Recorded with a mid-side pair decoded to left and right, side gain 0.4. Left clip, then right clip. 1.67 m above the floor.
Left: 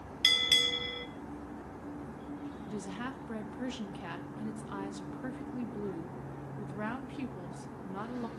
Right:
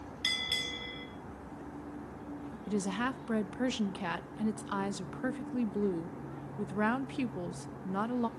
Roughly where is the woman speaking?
Ahead right.